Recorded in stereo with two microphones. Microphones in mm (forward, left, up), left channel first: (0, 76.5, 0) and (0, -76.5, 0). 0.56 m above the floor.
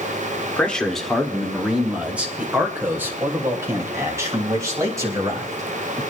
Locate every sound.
0.6 s a man speaking: 10° left (ahead or behind), 1.7 m; by 6.0 s 25° right (ahead or behind), 4.5 m